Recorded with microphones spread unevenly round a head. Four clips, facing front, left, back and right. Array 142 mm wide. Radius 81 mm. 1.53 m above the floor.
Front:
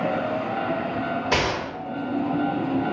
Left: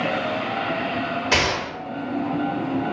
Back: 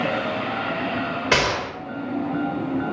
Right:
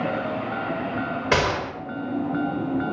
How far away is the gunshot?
About 1.5 m.